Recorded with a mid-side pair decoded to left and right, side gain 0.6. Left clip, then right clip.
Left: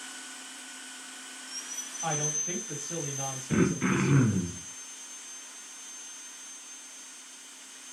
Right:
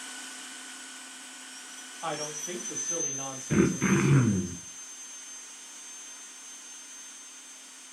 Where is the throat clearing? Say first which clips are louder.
Right 2 dB; 10° right, 0.5 m.